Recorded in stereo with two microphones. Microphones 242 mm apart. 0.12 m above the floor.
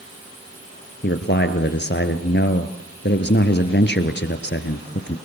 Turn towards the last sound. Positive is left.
turn(degrees=45)  # may be behind; listen again after turning